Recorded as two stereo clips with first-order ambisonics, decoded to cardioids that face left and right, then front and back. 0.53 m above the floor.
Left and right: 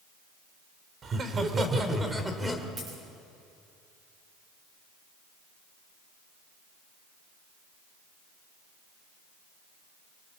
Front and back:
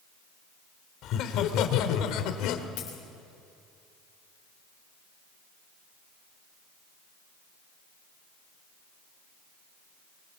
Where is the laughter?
30° right, 2 m; by 2.7 s straight ahead, 2 m.